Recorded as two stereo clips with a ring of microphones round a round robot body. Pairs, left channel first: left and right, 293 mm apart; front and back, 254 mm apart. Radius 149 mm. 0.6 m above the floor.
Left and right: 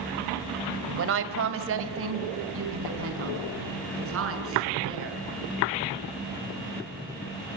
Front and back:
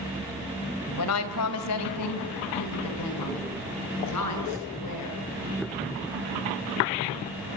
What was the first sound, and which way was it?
A woman speaking, 40° right.